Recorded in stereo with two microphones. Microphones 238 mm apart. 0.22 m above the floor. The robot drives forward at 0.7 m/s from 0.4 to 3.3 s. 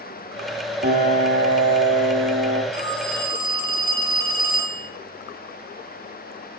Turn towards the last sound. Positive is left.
turn(degrees=40)  # may be behind; listen again after turning